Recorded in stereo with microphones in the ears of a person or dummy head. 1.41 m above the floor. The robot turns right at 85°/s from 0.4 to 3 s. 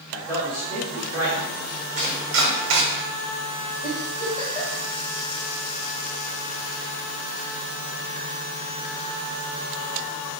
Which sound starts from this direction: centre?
A man speaking, at 0.1 s.